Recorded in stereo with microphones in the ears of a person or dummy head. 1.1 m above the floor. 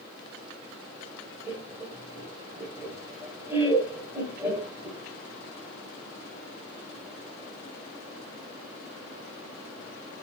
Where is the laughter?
10° right (ahead or behind), 1.2 m.